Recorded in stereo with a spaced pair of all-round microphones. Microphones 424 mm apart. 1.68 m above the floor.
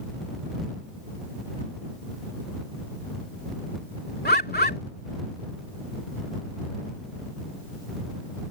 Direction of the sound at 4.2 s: 20° left (ahead or behind).